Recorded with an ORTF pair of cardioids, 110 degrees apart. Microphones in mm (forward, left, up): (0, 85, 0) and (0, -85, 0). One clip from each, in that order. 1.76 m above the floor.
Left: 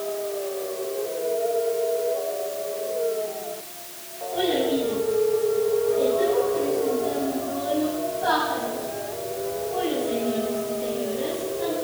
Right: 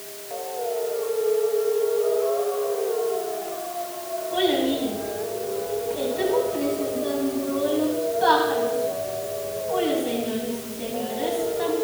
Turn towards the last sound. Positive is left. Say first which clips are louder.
# even
turn(degrees=-55)